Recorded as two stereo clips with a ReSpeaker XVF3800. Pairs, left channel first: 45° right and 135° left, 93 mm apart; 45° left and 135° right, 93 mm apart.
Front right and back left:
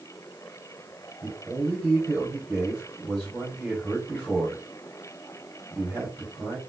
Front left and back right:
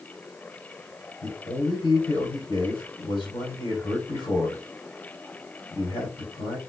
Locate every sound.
1.2 s a man speaking: 50° left, 2.5 m